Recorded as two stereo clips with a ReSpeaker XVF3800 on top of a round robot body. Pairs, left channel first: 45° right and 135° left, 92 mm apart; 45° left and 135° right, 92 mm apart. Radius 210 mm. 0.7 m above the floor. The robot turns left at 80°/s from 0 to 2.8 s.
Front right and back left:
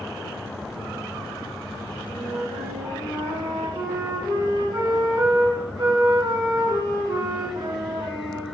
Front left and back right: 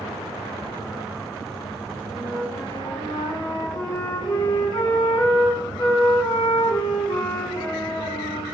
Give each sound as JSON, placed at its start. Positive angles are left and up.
{"t": 2.1, "sound": "a flute", "azimuth_deg": 150, "distance_m": 1.9}